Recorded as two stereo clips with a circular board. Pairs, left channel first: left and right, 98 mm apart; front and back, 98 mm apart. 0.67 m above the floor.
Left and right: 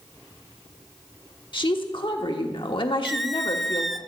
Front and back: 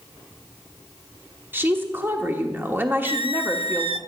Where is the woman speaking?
115° left, 1.3 m.